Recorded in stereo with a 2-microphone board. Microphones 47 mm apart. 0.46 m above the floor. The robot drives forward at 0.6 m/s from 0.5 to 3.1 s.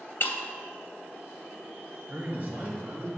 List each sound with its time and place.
0.2 s breaking glass: 50° left (ahead or behind), 0.7 m
2.1 s a man speaking: 40° right (ahead or behind), 1.5 m; by 3.1 s 30° right (ahead or behind), 1.9 m